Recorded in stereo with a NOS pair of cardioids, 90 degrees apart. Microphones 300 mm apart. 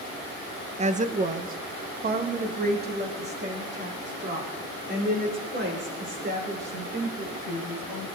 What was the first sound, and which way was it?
A woman speaking, 25° right.